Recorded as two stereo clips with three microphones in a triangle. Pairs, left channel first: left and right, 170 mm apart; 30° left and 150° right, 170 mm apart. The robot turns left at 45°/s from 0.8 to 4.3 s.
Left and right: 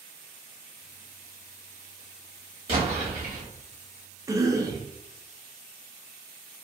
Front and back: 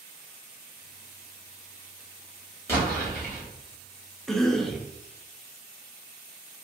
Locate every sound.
2.7 s an explosion: 40° right, 1.7 m; by 3.4 s 75° right, 1.7 m
4.3 s a cough: 55° right, 0.6 m